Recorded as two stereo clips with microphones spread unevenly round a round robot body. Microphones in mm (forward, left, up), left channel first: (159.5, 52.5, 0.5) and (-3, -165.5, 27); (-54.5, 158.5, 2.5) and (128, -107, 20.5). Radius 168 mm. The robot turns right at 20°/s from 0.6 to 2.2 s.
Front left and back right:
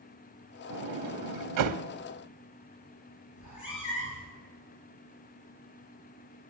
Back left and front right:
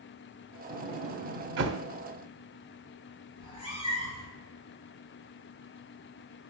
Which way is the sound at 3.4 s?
50° left.